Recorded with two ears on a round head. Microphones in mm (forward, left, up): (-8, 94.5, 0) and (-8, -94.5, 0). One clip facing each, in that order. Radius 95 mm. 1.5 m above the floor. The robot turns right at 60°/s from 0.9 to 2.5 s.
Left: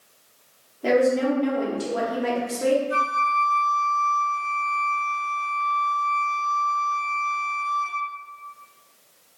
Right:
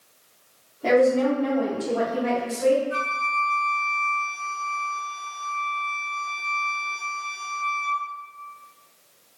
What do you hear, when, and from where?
0.8 s a woman speaking: 5° left, 0.9 m; by 2.8 s 105° left, 0.9 m
2.9 s a flute: 45° left (ahead or behind), 0.8 m